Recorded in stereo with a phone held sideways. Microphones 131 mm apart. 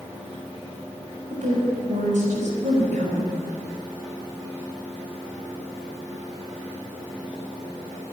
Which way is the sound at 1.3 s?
70° right (ahead or behind).